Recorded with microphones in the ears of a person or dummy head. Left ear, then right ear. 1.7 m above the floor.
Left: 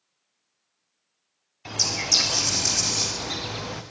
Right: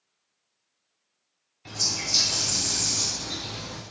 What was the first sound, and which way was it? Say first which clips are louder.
A bird: left 3 dB; 30° left (ahead or behind).